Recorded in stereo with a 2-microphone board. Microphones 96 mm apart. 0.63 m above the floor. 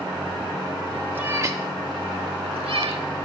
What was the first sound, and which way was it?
A cat meowing, 20° right (ahead or behind).